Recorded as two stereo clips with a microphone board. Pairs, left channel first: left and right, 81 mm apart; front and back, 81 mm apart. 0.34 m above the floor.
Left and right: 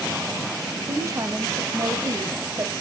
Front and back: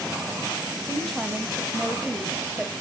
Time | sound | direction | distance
0.8 | a woman speaking | 90° right | 1.6 m